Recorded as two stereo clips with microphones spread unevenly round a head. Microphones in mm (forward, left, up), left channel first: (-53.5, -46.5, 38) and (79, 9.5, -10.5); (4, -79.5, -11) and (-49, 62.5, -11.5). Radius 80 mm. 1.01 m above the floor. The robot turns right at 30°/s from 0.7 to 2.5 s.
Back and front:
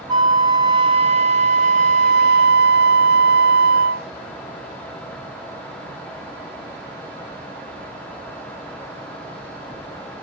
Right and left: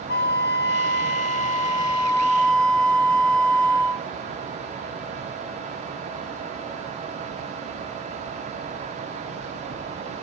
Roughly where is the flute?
Ahead right.